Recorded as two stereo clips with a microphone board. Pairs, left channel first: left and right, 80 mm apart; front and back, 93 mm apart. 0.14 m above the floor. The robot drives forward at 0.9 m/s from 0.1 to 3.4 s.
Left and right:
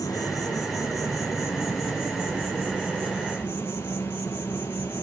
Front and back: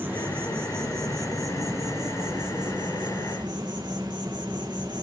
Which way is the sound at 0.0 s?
115° left.